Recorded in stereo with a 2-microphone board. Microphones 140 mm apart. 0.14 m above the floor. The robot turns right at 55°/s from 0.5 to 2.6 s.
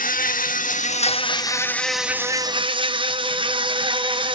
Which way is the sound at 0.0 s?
100° left.